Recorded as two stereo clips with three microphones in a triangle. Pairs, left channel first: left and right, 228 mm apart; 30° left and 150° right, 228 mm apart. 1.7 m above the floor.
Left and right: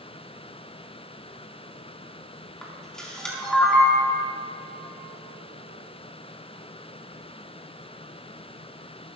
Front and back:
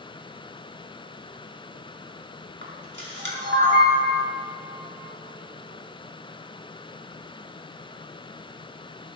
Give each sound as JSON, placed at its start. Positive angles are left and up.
{"t": 2.6, "sound": "a camera shutter", "azimuth_deg": 175, "distance_m": 5.0}